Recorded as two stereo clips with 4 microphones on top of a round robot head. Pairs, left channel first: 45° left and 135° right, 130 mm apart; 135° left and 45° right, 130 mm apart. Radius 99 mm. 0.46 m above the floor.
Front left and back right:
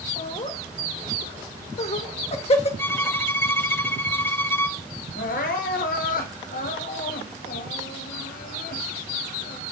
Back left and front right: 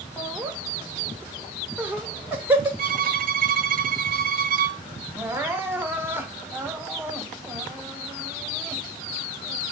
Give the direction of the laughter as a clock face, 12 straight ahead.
11 o'clock.